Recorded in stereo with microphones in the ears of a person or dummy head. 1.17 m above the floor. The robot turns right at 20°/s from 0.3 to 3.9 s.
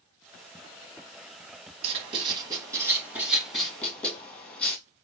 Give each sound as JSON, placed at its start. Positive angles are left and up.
{"t": 1.8, "sound": "writing", "side_deg": -30, "distance_m": 1.8}